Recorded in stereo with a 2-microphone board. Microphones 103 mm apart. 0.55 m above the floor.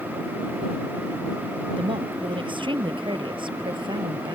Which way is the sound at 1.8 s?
55° right (ahead or behind).